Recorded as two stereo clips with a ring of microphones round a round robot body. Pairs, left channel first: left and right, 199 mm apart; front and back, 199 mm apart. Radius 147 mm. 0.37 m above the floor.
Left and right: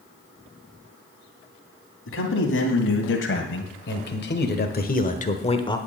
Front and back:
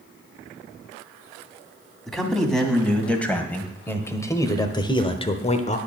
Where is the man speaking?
90° left, 2.5 m; by 5.8 s 30° left, 1.0 m.